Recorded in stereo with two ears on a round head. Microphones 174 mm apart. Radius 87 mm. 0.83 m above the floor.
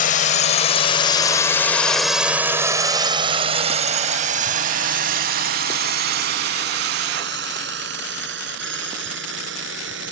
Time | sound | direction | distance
0.0 | a drone | 45° left (ahead or behind) | ?